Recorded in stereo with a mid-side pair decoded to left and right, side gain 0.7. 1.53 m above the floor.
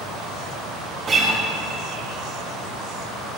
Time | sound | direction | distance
1.1 | a guitar | 35° right | 3 m